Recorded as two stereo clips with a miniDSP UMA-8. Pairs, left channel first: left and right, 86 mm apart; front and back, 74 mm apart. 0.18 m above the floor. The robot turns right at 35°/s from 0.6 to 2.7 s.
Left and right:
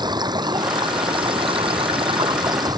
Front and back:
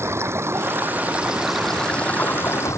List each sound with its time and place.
0.0 s running water: 125° right; by 2.8 s 50° right